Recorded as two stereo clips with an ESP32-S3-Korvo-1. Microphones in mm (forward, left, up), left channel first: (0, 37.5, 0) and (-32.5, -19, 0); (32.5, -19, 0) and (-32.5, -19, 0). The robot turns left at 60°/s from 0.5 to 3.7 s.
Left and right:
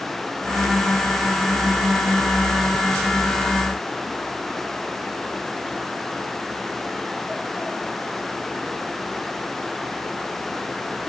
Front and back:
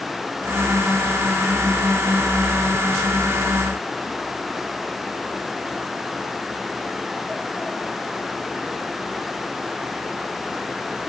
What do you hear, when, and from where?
Only background noise.